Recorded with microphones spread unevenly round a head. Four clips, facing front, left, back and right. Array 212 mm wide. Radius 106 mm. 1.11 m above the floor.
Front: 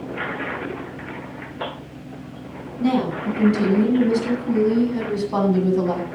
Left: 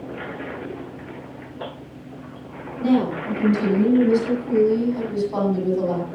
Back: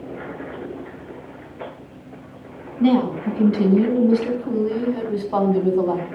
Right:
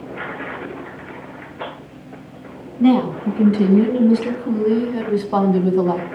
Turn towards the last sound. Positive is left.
turn(degrees=-80)